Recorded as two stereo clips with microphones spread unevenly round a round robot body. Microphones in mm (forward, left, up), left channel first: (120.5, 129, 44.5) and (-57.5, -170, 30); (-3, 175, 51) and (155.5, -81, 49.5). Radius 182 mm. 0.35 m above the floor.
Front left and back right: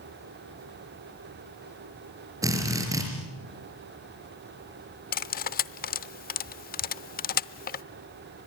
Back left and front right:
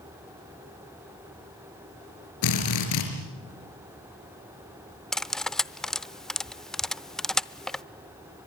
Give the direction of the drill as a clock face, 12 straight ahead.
7 o'clock.